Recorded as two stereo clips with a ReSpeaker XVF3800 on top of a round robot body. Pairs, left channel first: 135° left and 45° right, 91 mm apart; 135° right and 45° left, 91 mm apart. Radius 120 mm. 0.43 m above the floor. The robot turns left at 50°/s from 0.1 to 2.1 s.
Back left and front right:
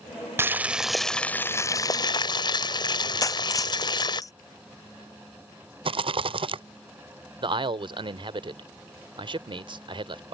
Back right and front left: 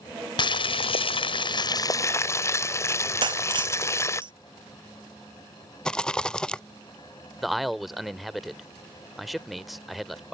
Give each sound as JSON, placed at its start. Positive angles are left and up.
{"t": 0.4, "sound": "boiling", "azimuth_deg": -110}
{"t": 3.2, "sound": "breaking glass", "azimuth_deg": 80}
{"t": 5.8, "sound": "a rattle", "azimuth_deg": -55}
{"t": 7.4, "sound": "a man speaking", "azimuth_deg": -45}